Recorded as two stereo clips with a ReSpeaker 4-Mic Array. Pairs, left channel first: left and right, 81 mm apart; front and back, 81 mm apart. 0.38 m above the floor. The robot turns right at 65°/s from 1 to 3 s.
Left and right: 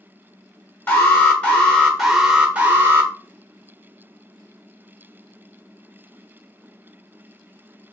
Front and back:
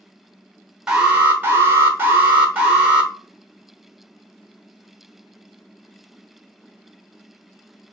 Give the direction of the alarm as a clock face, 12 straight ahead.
8 o'clock.